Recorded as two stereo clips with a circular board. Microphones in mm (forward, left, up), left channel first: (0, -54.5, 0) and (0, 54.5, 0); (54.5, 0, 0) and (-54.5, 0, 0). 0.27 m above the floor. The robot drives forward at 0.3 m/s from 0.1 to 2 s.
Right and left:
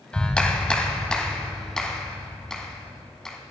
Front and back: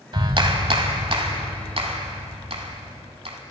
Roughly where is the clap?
Behind.